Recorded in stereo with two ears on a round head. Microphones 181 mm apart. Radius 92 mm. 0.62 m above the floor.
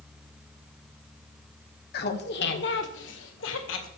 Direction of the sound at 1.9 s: 50° left (ahead or behind).